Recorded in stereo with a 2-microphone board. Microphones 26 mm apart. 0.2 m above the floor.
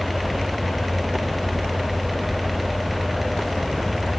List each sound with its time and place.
Only background noise.